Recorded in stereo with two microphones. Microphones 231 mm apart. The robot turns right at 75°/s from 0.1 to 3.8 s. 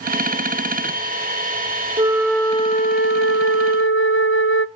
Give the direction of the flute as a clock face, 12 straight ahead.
1 o'clock.